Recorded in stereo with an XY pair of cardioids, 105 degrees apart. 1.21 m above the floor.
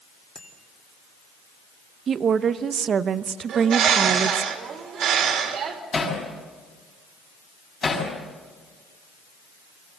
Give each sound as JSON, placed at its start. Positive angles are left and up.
{"t": 0.3, "sound": "a bicycle bell", "azimuth_deg": 15, "distance_m": 2.5}
{"t": 2.1, "sound": "a woman speaking", "azimuth_deg": -50, "distance_m": 0.8}
{"t": 3.5, "sound": "a bird", "azimuth_deg": -70, "distance_m": 2.5}
{"t": 5.9, "sound": "hammering", "azimuth_deg": 35, "distance_m": 6.0}